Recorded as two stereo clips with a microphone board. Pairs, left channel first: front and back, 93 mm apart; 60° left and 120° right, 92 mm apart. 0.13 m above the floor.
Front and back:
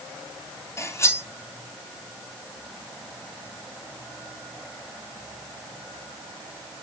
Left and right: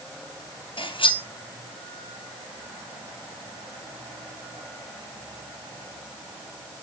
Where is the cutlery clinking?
60° left, 2 m.